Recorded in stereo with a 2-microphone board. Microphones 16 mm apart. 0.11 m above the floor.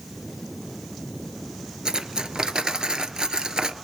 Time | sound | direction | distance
1.9 | cutlery clinking | 45° right (ahead or behind) | 1.2 m